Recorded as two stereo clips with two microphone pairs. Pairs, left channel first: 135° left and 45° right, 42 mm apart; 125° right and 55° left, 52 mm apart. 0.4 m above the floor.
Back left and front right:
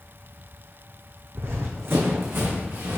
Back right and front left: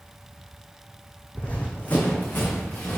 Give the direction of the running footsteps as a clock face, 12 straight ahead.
2 o'clock.